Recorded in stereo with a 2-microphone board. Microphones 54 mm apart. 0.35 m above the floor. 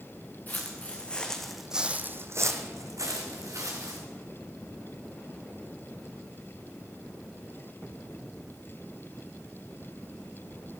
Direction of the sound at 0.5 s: 30° left (ahead or behind).